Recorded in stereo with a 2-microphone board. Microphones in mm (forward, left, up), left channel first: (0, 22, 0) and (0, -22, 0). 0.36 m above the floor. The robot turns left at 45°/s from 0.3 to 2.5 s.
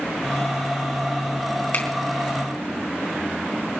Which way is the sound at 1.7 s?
40° left (ahead or behind).